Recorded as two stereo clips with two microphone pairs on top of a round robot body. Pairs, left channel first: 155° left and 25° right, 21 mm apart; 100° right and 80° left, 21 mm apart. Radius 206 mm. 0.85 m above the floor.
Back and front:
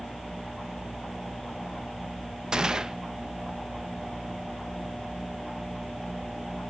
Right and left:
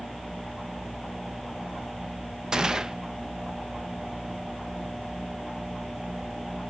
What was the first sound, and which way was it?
A gunshot, 30° left.